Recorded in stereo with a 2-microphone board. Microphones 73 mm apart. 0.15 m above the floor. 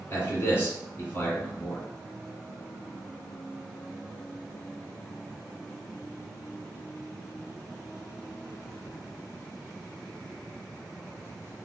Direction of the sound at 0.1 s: 25° left (ahead or behind).